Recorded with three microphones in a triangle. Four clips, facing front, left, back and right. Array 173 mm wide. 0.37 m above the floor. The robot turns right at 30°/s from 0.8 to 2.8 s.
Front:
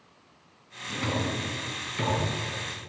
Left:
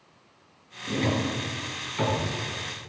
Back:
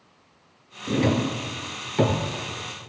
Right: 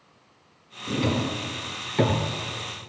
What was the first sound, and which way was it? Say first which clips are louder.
A drawer: right 1 dB, back 8 dB; 170° right.